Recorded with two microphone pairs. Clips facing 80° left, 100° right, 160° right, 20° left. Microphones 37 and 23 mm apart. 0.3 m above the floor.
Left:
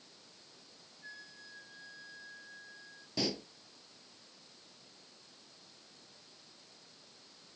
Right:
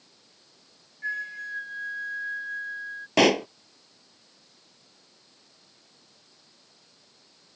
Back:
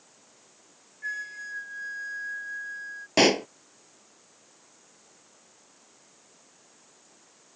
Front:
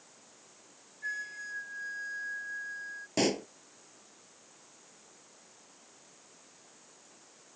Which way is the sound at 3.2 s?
115° right.